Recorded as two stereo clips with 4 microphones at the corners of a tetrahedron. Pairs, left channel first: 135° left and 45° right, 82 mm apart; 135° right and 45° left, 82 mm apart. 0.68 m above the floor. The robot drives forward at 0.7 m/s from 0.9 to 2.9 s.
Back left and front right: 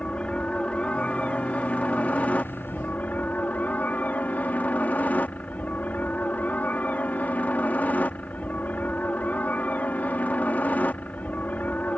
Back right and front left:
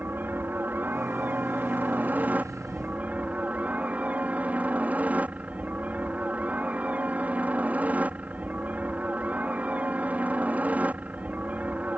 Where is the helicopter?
75° left; by 12.0 s 90° left.